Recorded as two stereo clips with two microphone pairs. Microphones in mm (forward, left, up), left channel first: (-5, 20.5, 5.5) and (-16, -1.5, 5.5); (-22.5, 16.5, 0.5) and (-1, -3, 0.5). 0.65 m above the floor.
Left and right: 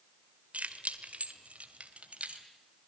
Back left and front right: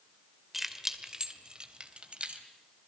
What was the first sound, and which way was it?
Keys jangling, 125° right.